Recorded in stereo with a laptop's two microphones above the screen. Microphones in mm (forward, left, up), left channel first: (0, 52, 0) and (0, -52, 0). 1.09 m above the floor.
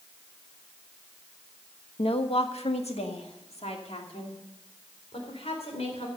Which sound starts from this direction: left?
A woman speaking, at 2.0 s.